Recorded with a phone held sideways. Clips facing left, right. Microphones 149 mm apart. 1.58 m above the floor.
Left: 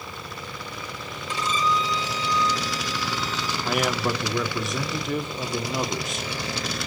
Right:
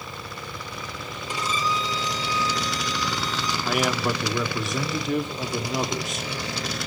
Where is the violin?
10° right (ahead or behind), 1.3 m.